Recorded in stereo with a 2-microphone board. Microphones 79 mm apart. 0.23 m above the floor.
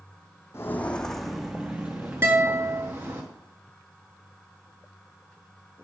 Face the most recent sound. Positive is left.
turn(degrees=-30)  # may be behind; listen again after turning